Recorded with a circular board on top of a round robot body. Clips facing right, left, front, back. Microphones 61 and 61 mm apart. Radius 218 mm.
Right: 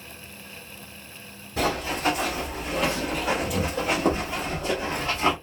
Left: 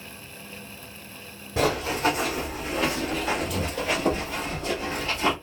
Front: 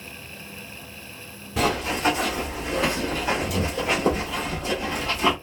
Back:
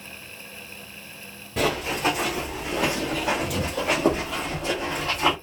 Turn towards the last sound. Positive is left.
turn(degrees=-155)